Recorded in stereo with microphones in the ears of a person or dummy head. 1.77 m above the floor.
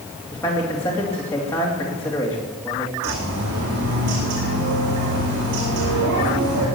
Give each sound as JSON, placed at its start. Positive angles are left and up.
{"t": 0.3, "sound": "a man speaking", "side_deg": 10, "distance_m": 2.5}
{"t": 3.0, "sound": "a bird", "side_deg": -60, "distance_m": 8.0}